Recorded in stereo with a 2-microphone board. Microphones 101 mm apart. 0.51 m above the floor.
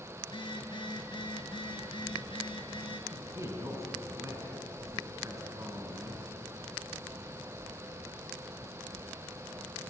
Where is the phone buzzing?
50° left (ahead or behind), 3.5 m.